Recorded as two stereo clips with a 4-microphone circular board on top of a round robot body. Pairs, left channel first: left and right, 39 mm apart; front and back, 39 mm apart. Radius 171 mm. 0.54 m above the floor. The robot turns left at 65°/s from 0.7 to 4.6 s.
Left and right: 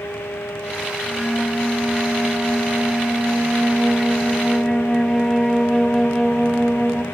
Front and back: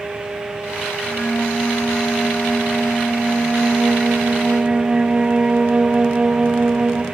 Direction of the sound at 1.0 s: 55° left.